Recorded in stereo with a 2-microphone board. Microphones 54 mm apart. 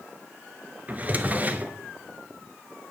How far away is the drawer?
About 0.6 m.